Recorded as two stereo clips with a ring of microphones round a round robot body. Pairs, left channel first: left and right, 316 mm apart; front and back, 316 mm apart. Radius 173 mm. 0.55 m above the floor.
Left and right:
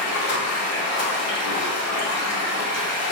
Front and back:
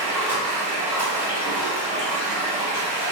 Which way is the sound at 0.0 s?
100° left.